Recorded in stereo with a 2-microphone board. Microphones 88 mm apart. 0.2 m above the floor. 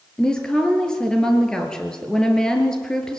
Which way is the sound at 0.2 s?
10° left (ahead or behind).